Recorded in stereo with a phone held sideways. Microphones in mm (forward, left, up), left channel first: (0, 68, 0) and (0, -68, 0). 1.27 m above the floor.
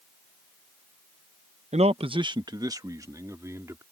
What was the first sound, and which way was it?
A man speaking, 60° right (ahead or behind).